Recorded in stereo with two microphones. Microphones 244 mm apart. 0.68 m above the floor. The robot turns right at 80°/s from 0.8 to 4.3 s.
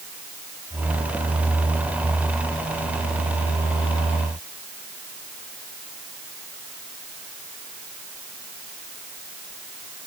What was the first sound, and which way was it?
Only background noise.